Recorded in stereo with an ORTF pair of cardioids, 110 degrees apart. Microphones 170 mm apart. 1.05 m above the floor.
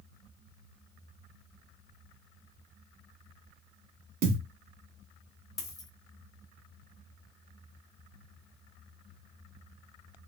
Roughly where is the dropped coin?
Ahead.